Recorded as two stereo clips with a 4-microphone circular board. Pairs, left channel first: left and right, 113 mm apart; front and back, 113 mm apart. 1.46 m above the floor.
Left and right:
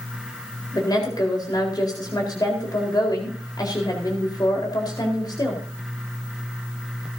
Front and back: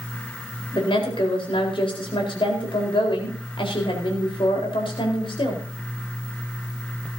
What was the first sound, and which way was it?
A woman speaking, 35° left.